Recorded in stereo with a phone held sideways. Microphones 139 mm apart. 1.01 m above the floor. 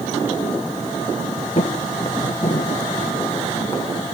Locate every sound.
1.6 s footsteps: 45° left (ahead or behind), 1.4 m; by 3.8 s 20° left (ahead or behind), 2.5 m